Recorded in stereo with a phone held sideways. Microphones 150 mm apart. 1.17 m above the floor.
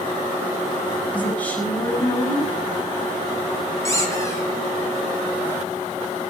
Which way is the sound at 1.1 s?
10° left (ahead or behind).